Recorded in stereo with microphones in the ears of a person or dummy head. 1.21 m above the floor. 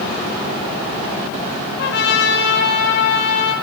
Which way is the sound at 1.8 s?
60° left (ahead or behind).